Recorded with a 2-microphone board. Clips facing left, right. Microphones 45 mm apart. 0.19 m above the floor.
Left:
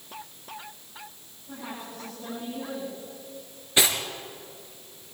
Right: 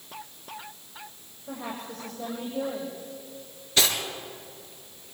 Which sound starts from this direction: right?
A woman speaking, at 1.5 s.